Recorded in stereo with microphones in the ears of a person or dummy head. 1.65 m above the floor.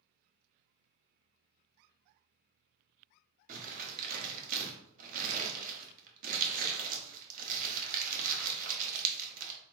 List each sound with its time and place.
3.5 s crumpling: 55° right (ahead or behind), 0.9 m